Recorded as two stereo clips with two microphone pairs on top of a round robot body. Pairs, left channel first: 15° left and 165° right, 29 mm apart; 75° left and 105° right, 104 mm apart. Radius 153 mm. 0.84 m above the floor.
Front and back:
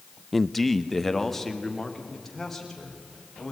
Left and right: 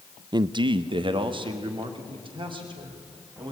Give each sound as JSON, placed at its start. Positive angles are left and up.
{"t": 0.3, "sound": "a man speaking", "azimuth_deg": -65, "distance_m": 0.7}